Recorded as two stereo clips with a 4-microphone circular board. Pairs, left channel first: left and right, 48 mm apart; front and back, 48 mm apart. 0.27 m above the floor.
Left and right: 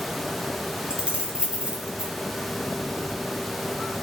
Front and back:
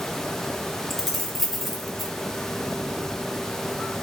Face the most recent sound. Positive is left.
turn(degrees=-80)